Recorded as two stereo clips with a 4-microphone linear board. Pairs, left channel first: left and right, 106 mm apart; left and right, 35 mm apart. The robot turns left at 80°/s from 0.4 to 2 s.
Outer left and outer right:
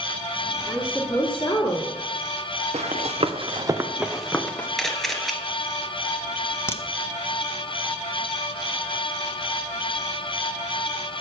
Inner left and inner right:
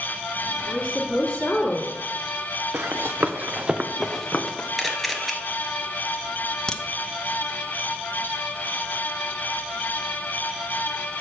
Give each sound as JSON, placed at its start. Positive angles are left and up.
{"t": 0.7, "sound": "a woman speaking", "azimuth_deg": -175, "distance_m": 1.8}
{"t": 2.7, "sound": "running footsteps", "side_deg": -80, "distance_m": 1.3}
{"t": 4.8, "sound": "a camera shutter", "side_deg": 0, "distance_m": 1.2}
{"t": 6.7, "sound": "a crack", "side_deg": 20, "distance_m": 0.8}